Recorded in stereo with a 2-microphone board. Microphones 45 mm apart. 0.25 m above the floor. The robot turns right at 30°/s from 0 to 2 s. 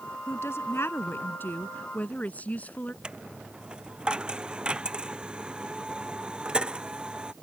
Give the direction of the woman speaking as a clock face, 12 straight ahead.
9 o'clock.